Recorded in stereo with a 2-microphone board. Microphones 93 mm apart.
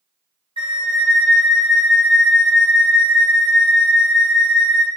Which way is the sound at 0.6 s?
65° right (ahead or behind).